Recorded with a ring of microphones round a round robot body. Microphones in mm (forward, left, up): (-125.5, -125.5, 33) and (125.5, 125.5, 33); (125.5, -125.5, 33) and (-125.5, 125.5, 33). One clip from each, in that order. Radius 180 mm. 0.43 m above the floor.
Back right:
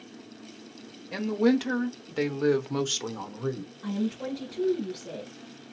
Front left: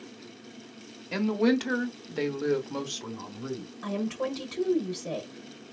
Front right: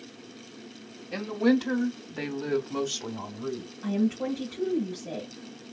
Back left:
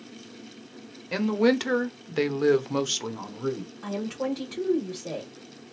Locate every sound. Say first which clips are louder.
1.1 s a woman speaking: back right 1 dB, back left 3 dB; 110° left, 1.5 m; by 3.7 s 155° right, 1.4 m
3.8 s a woman speaking: front left 2 dB, front right 1 dB; 80° left, 1.7 m